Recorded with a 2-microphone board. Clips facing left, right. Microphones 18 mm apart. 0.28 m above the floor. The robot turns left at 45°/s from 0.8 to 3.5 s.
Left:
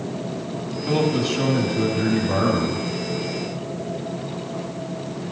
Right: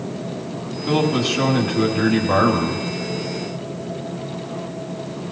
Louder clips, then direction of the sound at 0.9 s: Right 2 dB; 15° right.